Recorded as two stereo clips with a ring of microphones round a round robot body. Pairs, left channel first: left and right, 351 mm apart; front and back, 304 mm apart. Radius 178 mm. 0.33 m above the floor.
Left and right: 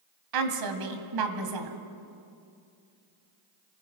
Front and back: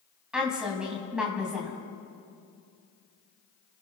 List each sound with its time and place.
0.3 s a woman speaking: 95° right, 2 m